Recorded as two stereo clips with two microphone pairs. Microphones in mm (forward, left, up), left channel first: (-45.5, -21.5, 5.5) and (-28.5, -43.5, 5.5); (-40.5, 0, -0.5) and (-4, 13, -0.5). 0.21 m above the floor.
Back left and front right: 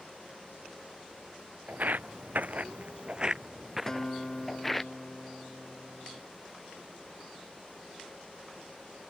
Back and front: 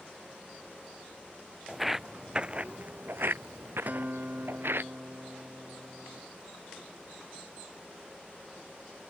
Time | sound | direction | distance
1.7 | footsteps | 70° right | ?
3.9 | a guitar | 60° left | ?